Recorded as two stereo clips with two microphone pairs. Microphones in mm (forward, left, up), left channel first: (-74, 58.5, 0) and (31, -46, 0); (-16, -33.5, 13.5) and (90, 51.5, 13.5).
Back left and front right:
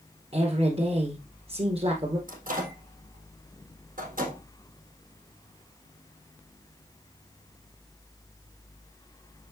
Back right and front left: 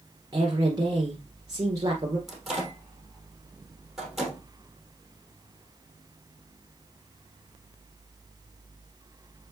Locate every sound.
0.3 s a woman speaking: 10° right, 1.7 m
2.3 s a microwave: 50° right, 3 m